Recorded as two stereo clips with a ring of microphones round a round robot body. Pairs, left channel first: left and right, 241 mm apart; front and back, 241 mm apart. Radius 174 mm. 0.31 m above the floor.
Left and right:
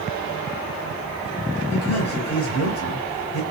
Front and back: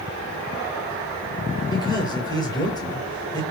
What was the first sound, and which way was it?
A man speaking, 75° left.